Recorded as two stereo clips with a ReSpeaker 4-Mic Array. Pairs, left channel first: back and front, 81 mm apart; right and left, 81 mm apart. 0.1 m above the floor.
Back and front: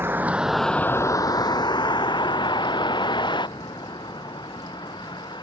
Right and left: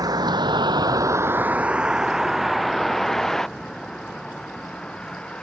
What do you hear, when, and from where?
0.0 s a vehicle: 60° left; by 5.4 s 170° right